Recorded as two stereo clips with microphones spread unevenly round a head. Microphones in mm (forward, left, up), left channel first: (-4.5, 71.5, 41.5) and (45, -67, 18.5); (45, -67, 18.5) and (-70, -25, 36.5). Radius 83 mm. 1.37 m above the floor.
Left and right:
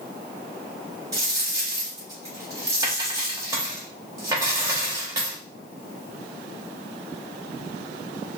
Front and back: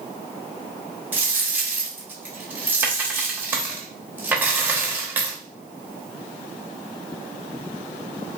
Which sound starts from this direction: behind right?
A dropped coin, at 1.1 s.